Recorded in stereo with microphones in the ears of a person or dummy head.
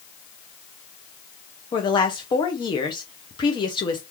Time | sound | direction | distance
1.7 | a woman speaking | 25° left (ahead or behind) | 0.6 m